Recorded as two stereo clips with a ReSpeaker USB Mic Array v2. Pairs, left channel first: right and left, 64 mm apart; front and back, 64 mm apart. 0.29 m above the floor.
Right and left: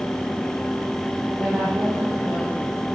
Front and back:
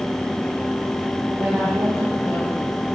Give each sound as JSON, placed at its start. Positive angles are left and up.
{"t": 1.4, "sound": "a woman speaking", "azimuth_deg": 130, "distance_m": 7.5}